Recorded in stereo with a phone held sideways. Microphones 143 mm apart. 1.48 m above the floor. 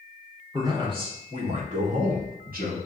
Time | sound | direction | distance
0.5 | a man speaking | 25° right (ahead or behind) | 1.7 m